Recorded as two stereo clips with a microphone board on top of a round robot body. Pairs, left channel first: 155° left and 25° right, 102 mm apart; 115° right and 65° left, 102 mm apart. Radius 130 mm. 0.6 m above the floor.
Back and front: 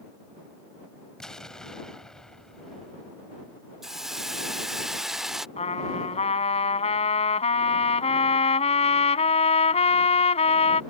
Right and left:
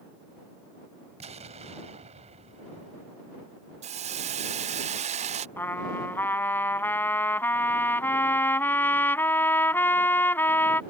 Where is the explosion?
75° left.